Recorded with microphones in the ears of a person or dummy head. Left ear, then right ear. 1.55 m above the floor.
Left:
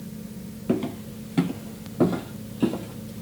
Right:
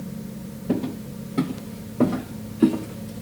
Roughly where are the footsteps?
Left.